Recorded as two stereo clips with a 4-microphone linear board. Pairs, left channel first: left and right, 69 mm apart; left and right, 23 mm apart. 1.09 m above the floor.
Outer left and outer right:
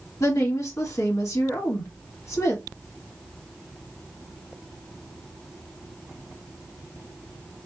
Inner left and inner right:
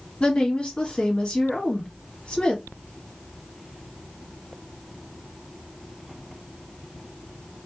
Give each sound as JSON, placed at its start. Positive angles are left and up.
{"t": 0.2, "sound": "a woman speaking", "side_deg": 45, "distance_m": 1.5}